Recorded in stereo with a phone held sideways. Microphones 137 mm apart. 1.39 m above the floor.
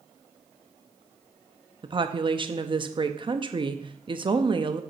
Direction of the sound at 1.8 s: 40° right (ahead or behind).